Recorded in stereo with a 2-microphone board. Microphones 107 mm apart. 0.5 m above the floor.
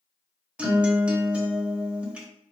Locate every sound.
0.6 s a guitar: 10° right (ahead or behind), 0.7 m